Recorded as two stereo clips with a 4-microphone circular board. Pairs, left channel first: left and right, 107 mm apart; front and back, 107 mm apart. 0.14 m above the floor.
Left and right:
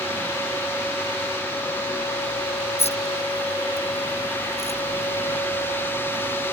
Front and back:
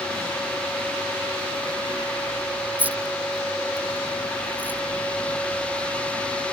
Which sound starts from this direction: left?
Keys jangling, at 2.8 s.